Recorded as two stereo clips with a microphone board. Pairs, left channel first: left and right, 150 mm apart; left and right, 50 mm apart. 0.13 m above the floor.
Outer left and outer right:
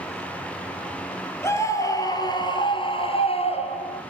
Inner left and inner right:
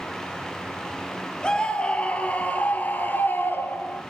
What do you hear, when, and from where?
1.4 s a scream: 20° left (ahead or behind), 2.5 m; by 4.0 s 50° left (ahead or behind), 2.5 m